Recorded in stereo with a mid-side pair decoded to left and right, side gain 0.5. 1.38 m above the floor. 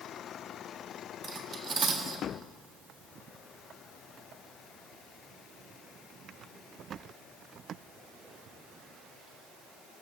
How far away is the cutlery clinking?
About 1.6 m.